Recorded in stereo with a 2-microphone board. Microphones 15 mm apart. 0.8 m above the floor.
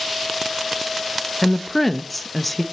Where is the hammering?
No hammering in this recording.